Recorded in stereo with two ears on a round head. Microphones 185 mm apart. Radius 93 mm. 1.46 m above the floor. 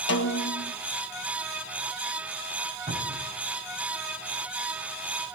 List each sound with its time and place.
0.1 s a snare drum: 60° left (ahead or behind), 1.4 m
2.9 s a cupboard door: 35° right (ahead or behind), 4.5 m